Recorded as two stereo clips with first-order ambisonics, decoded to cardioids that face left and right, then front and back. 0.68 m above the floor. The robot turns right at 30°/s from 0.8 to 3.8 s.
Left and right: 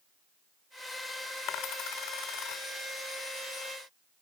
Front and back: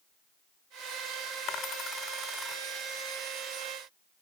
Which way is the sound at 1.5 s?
50° left.